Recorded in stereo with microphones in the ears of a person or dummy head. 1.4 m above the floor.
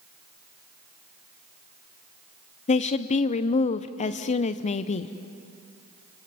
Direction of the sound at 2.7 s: 40° left (ahead or behind).